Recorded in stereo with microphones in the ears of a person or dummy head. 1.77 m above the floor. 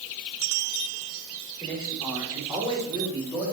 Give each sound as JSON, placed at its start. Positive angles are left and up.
{"t": 1.6, "sound": "a man speaking", "side_deg": -20, "distance_m": 4.5}